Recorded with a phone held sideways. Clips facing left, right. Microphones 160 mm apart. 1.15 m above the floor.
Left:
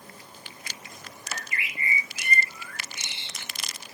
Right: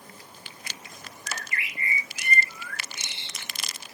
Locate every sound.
1.3 s a bird: 20° left (ahead or behind), 0.6 m